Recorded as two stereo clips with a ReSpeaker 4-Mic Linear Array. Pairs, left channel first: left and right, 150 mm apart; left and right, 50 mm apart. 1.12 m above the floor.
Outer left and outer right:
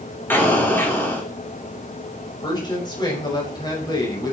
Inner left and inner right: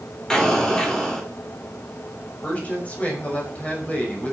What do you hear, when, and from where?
0.3 s an explosion: 15° left (ahead or behind), 3 m
2.4 s a woman speaking: 30° left (ahead or behind), 5 m